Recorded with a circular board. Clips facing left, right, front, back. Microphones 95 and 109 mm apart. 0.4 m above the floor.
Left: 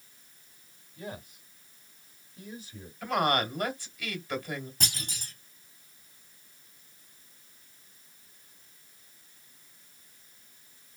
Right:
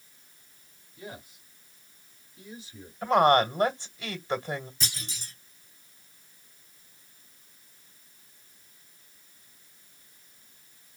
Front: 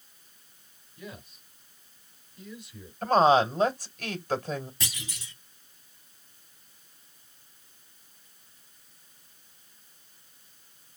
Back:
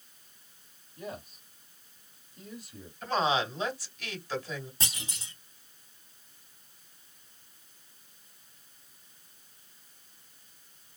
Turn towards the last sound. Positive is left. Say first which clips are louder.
# left 1 dB, even
turn(degrees=120)